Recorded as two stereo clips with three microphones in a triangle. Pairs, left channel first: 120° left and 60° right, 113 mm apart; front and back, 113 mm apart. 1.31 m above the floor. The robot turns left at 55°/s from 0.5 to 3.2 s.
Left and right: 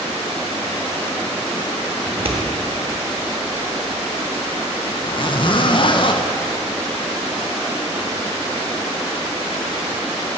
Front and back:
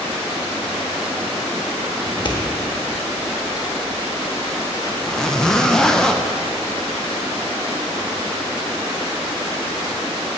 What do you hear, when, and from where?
2.1 s scissors: 25° right, 1.0 m; by 2.4 s 45° right, 1.0 m
5.0 s a zipper: 85° left, 0.6 m